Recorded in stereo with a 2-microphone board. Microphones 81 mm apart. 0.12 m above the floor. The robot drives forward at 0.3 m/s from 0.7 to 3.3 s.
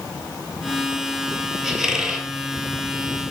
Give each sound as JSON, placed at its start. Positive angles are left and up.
{"t": 1.6, "sound": "a squeak", "side_deg": -5, "distance_m": 0.8}